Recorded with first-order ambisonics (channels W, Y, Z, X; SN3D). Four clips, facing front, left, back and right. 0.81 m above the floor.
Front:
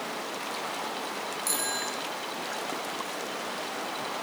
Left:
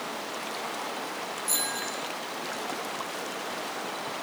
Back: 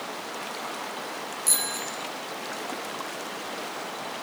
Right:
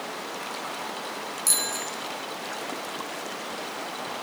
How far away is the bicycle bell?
About 6.5 m.